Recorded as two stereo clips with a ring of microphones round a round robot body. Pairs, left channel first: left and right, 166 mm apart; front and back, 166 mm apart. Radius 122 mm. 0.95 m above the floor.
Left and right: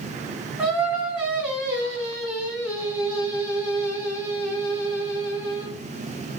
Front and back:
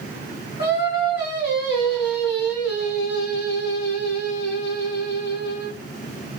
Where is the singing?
10° right, 1.5 m.